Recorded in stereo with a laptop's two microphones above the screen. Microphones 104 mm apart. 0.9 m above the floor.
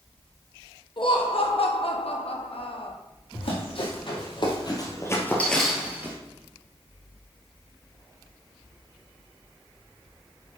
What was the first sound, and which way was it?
Laughter, 50° left (ahead or behind).